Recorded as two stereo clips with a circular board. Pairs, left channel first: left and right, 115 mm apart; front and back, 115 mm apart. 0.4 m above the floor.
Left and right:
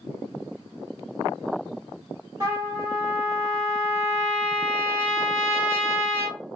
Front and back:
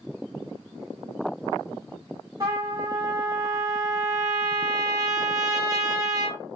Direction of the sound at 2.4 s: 140° right.